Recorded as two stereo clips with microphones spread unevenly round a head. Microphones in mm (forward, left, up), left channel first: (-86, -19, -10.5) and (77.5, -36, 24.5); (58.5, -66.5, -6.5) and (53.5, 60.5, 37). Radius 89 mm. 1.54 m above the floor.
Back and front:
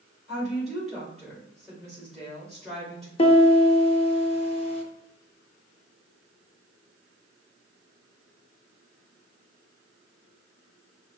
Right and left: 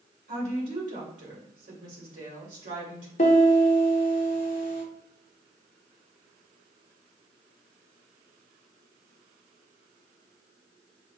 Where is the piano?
135° right, 0.8 m.